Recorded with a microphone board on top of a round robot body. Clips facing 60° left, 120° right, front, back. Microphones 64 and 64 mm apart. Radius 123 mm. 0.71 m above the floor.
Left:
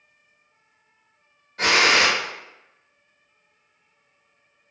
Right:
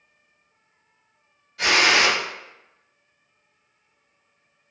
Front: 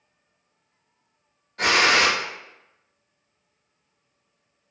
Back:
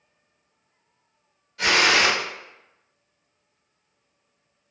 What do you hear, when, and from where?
1.6 s a gunshot: 25° left, 0.8 m